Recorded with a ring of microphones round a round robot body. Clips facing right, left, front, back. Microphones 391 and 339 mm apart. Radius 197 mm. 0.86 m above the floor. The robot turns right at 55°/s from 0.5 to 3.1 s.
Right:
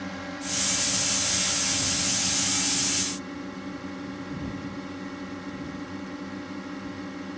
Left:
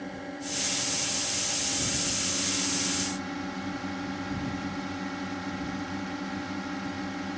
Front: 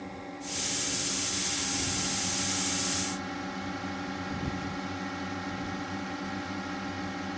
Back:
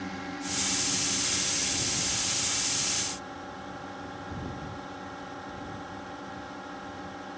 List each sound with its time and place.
0.0 s a drone: 125° right; by 7.4 s 15° left